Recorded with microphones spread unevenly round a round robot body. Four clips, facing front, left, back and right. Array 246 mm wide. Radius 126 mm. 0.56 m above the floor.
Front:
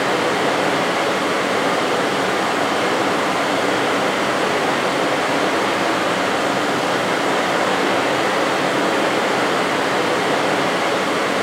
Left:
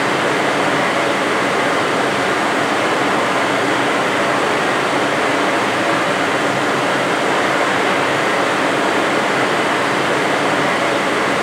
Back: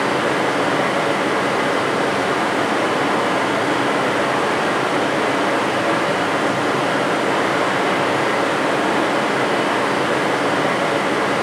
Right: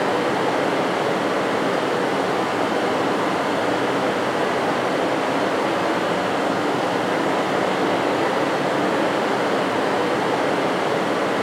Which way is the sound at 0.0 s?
105° left.